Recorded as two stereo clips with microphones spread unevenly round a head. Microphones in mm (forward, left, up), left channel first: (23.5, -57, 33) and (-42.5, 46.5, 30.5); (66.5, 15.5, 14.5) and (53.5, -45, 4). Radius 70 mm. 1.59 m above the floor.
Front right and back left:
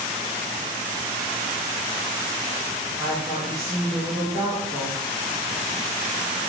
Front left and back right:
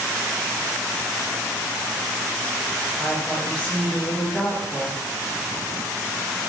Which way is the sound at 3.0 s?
10° left.